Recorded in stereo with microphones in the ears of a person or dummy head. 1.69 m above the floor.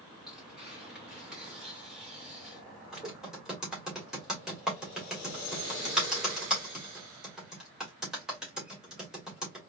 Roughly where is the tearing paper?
Centre.